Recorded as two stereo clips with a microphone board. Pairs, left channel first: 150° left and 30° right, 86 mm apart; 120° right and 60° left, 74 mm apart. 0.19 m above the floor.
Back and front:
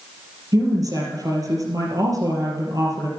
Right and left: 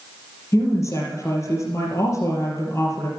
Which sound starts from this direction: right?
A woman speaking, at 0.5 s.